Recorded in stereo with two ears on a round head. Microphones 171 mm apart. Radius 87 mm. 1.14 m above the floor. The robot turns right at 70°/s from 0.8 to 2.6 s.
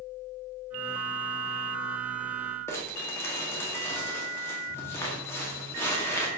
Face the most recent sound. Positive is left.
turn(degrees=15)  # may be behind; listen again after turning